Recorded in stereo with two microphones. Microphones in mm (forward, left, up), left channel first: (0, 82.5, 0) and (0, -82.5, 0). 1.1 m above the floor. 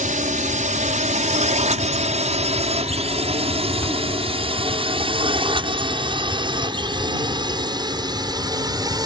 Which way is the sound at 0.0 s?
50° right (ahead or behind).